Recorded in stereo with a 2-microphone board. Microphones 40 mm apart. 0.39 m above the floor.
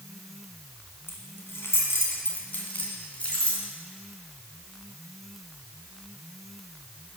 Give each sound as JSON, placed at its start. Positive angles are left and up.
{"t": 1.1, "sound": "keys jangling", "side_deg": 65, "distance_m": 2.5}